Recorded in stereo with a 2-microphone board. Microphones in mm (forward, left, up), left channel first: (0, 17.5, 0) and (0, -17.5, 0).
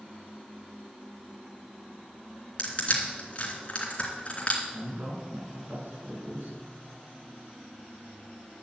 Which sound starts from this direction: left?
Crushing, at 2.6 s.